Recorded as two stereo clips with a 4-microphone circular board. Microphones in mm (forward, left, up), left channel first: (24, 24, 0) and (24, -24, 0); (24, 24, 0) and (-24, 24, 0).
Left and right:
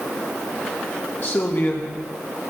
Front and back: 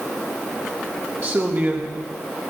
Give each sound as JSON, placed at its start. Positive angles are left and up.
{"t": 1.2, "sound": "a man speaking", "azimuth_deg": 135, "distance_m": 1.4}